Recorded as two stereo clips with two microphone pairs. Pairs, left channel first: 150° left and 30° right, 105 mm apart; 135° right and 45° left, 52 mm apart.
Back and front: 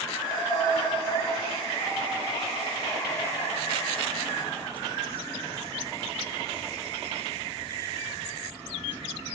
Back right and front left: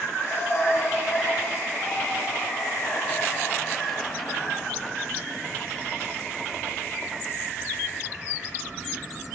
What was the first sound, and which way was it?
Breathing, 165° right.